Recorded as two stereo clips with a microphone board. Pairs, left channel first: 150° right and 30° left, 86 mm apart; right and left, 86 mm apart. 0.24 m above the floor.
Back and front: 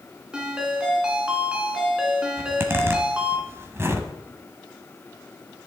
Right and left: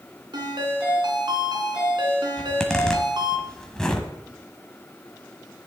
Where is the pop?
No pop in this recording.